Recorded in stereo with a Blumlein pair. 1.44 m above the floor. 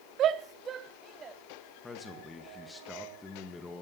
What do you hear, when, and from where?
0.2 s a shout: 30° right, 0.6 m; by 1.4 s 20° right, 1.4 m
1.8 s a man speaking: 15° left, 2.0 m